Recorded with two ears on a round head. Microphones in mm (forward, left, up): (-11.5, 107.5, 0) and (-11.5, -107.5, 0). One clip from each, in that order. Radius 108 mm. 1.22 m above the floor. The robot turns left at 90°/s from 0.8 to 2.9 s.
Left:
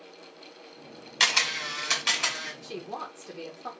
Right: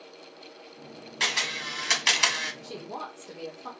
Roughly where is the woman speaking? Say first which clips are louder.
Left 1 dB; left.